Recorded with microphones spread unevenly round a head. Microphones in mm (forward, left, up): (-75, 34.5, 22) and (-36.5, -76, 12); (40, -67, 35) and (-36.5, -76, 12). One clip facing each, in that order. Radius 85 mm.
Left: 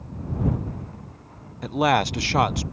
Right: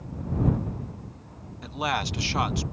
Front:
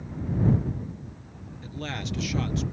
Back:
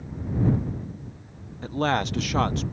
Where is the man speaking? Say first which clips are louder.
Left 8 dB, back 11 dB; 145° left.